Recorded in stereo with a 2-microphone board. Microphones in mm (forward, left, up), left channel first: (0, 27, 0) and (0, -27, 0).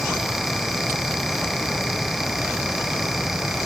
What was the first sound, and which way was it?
Only background noise.